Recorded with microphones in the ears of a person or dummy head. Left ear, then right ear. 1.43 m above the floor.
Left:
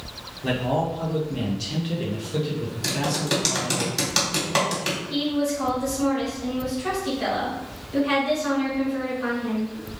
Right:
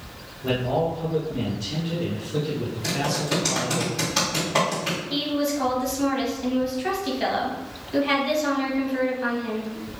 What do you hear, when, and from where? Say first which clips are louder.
0.4 s a man speaking: right 1 dB; 70° left (ahead or behind), 1.1 m; by 3.8 s 30° right (ahead or behind), 1.2 m
2.8 s typing on a keyboard: left 1 dB; 45° left (ahead or behind), 1.8 m
5.1 s a woman speaking: even; 30° right (ahead or behind), 1.3 m